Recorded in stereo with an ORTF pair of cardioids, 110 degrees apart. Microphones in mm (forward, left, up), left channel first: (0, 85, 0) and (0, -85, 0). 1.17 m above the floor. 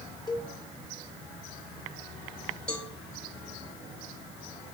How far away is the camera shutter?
No camera shutter in this recording.